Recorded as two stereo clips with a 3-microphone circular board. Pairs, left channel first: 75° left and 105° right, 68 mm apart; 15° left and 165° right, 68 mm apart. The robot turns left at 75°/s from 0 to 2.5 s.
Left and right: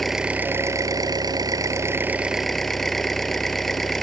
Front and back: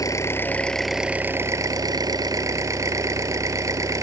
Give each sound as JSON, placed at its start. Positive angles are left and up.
{"t": 0.0, "sound": "an engine running", "azimuth_deg": -10}